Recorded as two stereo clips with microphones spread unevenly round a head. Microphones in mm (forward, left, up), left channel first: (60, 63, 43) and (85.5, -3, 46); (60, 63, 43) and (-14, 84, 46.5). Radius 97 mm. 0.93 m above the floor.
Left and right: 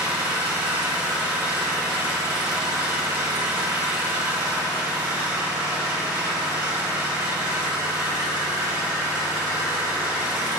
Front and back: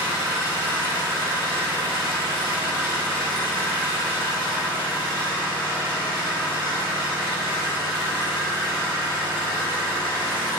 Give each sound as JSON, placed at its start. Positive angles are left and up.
{"t": 0.0, "sound": "an engine running", "azimuth_deg": -60, "distance_m": 1.6}